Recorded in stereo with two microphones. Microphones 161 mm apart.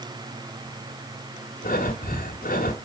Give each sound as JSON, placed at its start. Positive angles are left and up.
{"t": 1.6, "sound": "breathing", "side_deg": 60, "distance_m": 1.9}